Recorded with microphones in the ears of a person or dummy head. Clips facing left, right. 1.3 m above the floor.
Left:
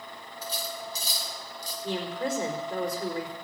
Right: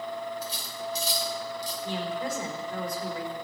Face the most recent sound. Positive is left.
turn(degrees=55)  # may be behind; listen again after turning